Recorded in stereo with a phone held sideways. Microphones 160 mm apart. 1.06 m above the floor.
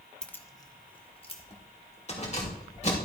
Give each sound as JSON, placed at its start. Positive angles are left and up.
{"t": 0.2, "sound": "keys jangling", "side_deg": 5, "distance_m": 0.6}